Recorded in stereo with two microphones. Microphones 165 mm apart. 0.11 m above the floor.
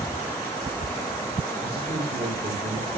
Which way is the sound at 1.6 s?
75° right (ahead or behind).